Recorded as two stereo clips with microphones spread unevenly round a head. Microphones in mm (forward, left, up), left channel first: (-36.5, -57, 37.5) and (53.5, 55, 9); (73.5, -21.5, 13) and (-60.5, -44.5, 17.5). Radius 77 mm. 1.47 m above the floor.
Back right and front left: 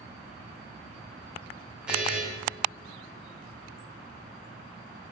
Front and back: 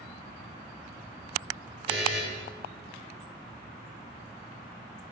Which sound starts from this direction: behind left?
A buzzer, at 1.9 s.